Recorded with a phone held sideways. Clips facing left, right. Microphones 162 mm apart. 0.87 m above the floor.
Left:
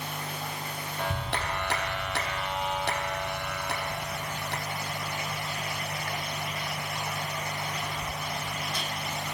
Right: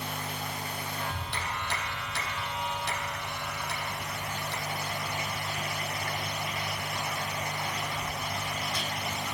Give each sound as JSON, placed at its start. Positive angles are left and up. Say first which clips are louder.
{"t": 1.0, "sound": "a clap", "louder": "left 4 dB", "side_deg": 65, "distance_m": 1.2}